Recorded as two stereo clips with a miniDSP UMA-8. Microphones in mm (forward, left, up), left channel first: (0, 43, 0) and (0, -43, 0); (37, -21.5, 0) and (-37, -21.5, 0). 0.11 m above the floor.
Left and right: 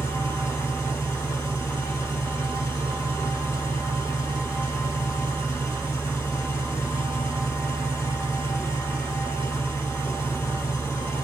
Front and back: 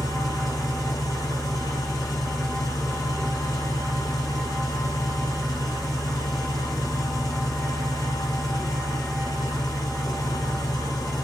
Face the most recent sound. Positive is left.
turn(degrees=35)